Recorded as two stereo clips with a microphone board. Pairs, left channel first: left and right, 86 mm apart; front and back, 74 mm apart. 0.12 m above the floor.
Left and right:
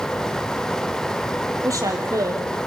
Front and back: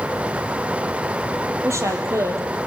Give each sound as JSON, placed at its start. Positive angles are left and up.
{"t": 1.6, "sound": "a woman speaking", "azimuth_deg": -135, "distance_m": 3.5}